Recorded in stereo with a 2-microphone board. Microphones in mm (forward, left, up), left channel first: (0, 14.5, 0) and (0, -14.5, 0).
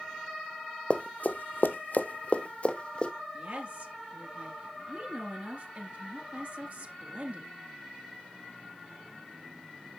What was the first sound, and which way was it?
Running footsteps, 45° left (ahead or behind).